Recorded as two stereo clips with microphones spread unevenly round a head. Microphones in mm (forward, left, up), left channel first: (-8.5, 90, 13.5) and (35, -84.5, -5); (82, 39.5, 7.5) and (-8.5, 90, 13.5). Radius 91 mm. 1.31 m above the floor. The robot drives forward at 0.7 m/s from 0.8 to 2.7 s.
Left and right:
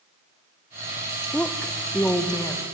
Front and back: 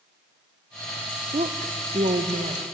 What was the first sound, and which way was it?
A woman speaking, 170° right.